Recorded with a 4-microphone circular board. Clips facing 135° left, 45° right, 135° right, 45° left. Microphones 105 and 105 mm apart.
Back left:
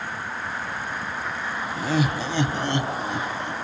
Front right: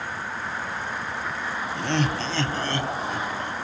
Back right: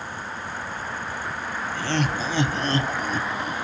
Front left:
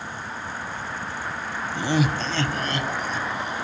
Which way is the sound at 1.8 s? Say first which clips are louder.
Back left 2 dB, front left 3 dB; 50° left.